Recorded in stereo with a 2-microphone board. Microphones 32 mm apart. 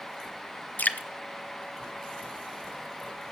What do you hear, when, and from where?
0.8 s dripping: 60° left (ahead or behind), 0.7 m